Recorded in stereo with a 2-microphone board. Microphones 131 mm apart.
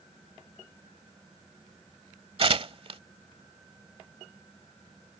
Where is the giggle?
No giggle in this recording.